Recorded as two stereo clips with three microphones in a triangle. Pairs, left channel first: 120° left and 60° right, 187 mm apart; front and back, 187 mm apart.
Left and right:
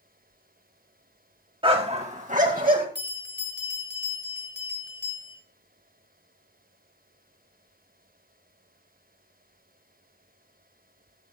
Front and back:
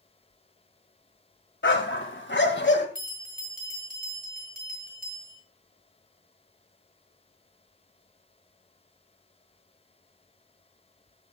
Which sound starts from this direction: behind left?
A bell, at 3.0 s.